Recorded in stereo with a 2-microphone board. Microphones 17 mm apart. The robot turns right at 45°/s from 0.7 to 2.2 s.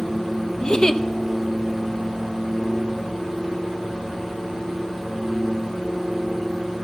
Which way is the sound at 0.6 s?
45° left (ahead or behind).